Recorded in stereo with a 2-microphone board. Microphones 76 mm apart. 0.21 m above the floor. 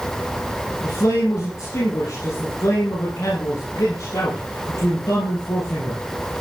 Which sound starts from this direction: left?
A man speaking, at 0.8 s.